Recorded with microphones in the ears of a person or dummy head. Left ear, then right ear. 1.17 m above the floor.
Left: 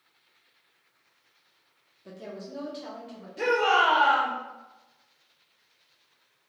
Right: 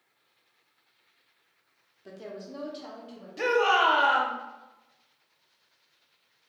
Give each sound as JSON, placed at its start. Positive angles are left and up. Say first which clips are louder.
{"t": 2.0, "sound": "a woman speaking", "louder": "even", "side_deg": -15, "distance_m": 0.5}
{"t": 3.4, "sound": "a shout", "louder": "even", "side_deg": -25, "distance_m": 0.7}